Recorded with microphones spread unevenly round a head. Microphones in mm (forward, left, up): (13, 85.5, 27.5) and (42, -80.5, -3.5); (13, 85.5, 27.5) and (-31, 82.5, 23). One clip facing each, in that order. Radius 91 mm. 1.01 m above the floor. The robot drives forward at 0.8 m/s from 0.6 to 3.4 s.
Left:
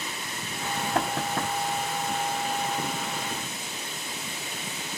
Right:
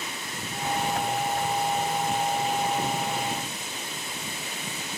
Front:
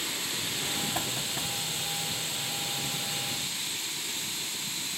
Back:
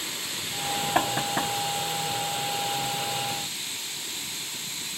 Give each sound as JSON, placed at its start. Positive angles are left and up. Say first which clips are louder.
{"t": 0.9, "sound": "knocking", "louder": "even, back 8 dB", "azimuth_deg": 140}